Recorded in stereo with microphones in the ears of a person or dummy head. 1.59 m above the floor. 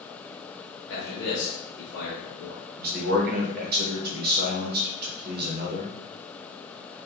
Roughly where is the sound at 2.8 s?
Right.